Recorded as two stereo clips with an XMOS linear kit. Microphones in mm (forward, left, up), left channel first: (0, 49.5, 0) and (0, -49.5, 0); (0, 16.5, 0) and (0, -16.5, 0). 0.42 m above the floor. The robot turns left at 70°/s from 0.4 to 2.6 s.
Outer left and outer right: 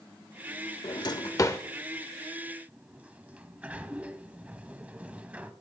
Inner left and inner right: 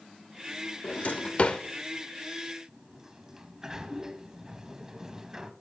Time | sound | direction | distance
0.8 | a drawer | 50° left (ahead or behind) | 0.6 m
2.7 | a sliding door | 15° right (ahead or behind) | 0.8 m